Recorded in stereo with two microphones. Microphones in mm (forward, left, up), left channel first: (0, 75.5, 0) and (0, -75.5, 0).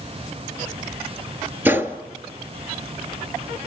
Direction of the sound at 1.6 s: 15° right (ahead or behind).